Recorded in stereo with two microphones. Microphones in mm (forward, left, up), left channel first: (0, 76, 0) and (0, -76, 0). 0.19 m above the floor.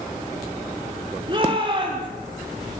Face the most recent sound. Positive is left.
turn(degrees=-30)  # may be behind; listen again after turning